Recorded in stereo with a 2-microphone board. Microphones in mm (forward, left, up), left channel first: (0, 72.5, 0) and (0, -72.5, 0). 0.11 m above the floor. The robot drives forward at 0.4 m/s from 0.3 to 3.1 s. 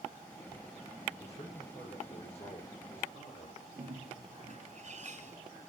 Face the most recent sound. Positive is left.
turn(degrees=-50)  # may be behind; listen again after turning